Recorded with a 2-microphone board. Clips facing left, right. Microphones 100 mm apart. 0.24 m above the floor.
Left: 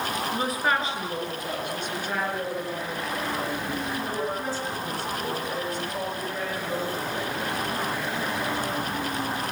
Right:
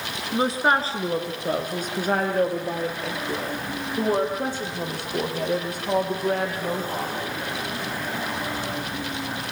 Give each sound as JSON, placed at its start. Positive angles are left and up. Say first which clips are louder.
{"t": 0.3, "sound": "a woman speaking", "louder": "right 6 dB", "side_deg": -25, "distance_m": 3.5}